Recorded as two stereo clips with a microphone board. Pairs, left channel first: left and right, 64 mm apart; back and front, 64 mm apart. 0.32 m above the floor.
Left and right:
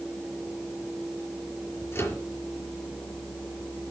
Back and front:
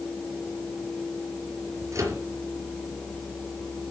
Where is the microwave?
40° left, 5.5 m.